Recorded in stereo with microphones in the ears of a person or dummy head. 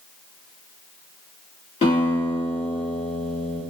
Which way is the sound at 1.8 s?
30° left (ahead or behind).